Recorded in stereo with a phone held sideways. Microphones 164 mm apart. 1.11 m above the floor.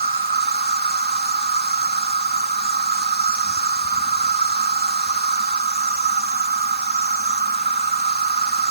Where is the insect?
70° right (ahead or behind).